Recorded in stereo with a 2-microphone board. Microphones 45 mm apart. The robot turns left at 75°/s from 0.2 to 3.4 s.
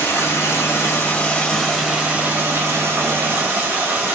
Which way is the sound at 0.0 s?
110° left.